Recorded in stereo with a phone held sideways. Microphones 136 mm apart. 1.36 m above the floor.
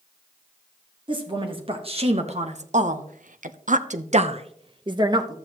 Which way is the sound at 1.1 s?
35° right (ahead or behind).